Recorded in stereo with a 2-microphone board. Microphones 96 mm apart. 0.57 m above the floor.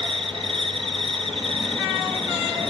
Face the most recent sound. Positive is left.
turn(degrees=-75)  # may be behind; listen again after turning